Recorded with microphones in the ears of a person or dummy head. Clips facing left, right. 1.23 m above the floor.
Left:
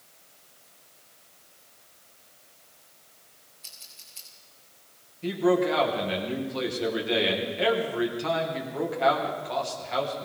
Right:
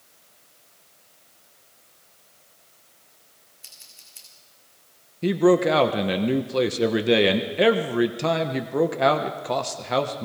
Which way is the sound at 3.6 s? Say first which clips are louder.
Even; 20° right (ahead or behind).